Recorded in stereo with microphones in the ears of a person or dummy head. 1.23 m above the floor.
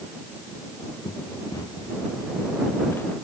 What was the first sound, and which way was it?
Running footsteps, 15° left (ahead or behind).